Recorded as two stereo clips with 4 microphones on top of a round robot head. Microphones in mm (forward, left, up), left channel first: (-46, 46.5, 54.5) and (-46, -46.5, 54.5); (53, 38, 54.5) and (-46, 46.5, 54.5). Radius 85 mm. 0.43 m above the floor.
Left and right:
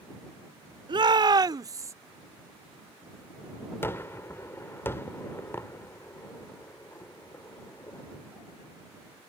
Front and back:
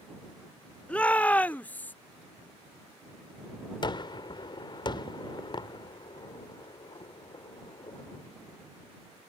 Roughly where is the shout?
Right.